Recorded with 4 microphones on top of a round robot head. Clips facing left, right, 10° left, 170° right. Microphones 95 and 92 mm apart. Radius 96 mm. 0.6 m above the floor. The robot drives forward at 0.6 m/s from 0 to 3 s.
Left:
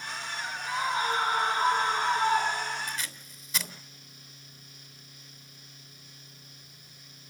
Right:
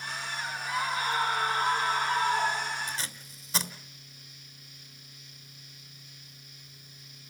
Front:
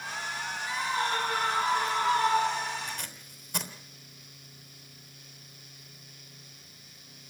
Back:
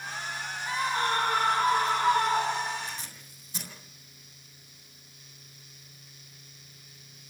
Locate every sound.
0.7 s a scream: 155° left, 8 m; by 2.9 s 160° left, 9 m
2.9 s tape being pulled: 35° right, 3 m